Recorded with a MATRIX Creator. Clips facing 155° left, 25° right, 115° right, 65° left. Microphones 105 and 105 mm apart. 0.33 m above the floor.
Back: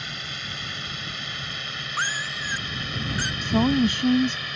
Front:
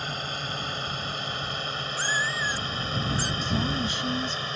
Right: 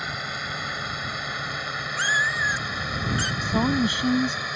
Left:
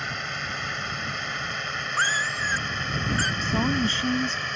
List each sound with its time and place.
0.0 s a drone: 30° right; by 4.6 s 35° right
2.0 s a cat meowing: 120° left
3.4 s a woman speaking: 170° left